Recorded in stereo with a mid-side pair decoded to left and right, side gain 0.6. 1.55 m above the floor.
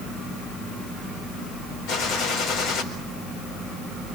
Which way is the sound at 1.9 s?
70° left.